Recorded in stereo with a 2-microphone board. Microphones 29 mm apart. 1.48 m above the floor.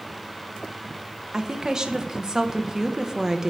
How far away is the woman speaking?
About 0.8 m.